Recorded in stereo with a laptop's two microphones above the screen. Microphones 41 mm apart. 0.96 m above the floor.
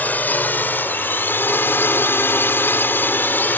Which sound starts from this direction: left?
A drone, at 0.0 s.